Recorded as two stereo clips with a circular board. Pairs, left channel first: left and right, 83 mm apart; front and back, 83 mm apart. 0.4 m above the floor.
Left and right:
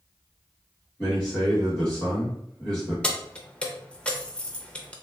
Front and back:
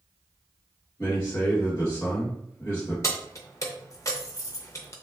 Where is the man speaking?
15° left, 1.8 m.